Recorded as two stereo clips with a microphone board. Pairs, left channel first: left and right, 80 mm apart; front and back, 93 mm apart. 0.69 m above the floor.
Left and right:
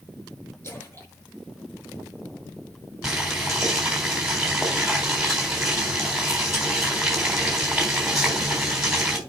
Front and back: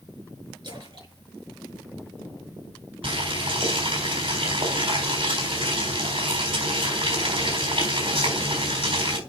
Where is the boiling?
175° right, 4 m.